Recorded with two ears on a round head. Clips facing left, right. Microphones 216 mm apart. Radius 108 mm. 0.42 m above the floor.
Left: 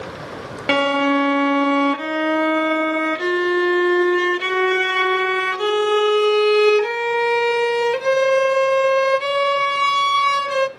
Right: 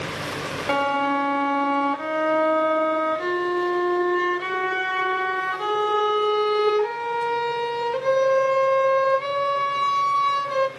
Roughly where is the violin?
Left.